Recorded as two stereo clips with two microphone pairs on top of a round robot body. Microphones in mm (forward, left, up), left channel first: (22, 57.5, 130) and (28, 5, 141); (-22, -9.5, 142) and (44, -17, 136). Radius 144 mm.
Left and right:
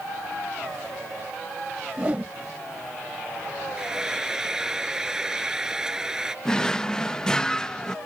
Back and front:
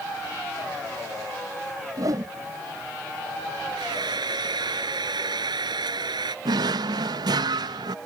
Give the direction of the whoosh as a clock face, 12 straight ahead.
1 o'clock.